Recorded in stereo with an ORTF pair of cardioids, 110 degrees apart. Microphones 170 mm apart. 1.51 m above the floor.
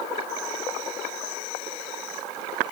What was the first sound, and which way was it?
Only background noise.